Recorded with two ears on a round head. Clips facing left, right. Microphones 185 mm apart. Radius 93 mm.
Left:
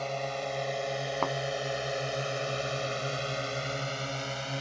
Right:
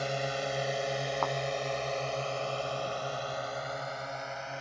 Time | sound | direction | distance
0.0 | a drone | 15° right (ahead or behind) | ?
1.2 | a thud | 45° left (ahead or behind) | ?